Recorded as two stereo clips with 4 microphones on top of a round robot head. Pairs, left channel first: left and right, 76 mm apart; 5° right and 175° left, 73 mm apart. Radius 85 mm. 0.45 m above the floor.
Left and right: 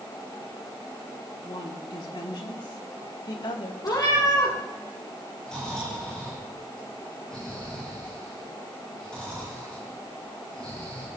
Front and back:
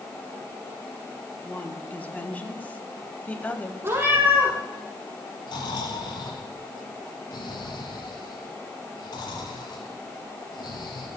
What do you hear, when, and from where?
1.4 s a woman speaking: 60° left, 3.5 m; by 3.7 s 65° left, 2.5 m
3.8 s a cat meowing: 120° left, 6.5 m
5.5 s snoring: 10° left, 9.5 m